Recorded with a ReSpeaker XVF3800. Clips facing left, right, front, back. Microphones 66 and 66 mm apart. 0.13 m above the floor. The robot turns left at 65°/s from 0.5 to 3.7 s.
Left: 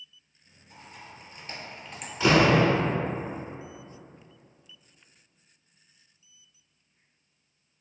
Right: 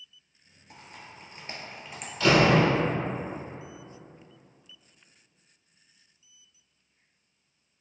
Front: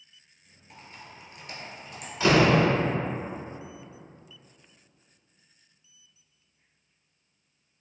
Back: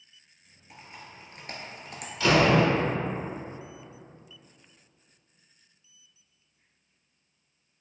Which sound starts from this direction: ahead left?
A door slam, at 2.2 s.